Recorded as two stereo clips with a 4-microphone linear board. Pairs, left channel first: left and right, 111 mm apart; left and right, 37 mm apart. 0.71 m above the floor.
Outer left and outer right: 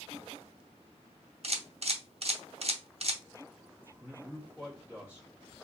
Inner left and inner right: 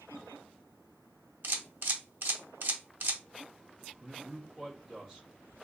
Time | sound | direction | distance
1.4 | a camera shutter | 65° right (ahead or behind) | 0.7 m
4.0 | a man speaking | 15° right (ahead or behind) | 1.8 m